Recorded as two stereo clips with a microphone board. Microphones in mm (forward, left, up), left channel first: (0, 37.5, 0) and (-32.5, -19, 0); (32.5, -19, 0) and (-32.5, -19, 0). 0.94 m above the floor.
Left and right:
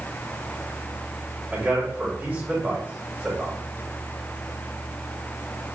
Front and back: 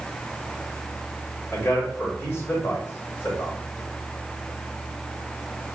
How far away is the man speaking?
About 4.5 m.